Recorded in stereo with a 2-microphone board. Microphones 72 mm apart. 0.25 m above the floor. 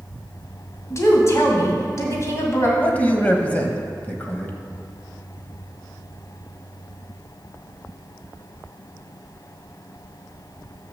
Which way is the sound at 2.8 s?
25° left (ahead or behind).